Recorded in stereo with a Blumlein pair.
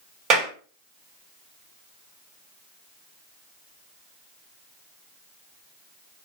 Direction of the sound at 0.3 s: 30° right.